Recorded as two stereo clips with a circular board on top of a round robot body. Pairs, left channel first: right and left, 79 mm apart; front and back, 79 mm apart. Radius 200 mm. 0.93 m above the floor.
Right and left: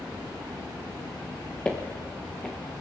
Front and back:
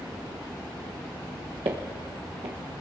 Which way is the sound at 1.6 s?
165° right.